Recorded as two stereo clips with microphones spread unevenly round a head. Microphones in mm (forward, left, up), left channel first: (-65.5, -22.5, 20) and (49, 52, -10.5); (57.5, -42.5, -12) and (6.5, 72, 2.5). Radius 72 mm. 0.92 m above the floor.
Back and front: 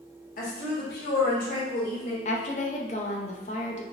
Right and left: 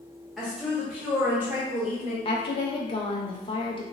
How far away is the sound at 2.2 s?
About 0.6 m.